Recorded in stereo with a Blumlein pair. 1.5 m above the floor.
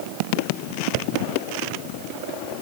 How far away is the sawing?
No sawing in this recording.